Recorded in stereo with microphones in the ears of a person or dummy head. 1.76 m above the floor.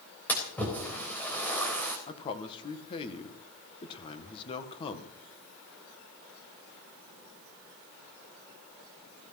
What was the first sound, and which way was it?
A splash, 5° left (ahead or behind).